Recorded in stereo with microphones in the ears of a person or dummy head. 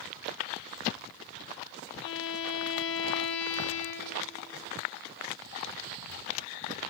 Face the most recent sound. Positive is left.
turn(degrees=70)  # may be behind; listen again after turning